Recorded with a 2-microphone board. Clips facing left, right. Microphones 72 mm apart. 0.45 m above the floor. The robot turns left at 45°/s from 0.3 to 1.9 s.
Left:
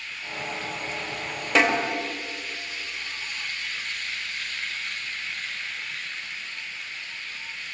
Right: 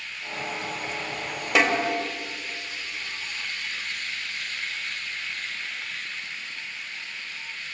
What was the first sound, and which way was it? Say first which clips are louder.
A snare drum: left 1 dB; 10° right (ahead or behind).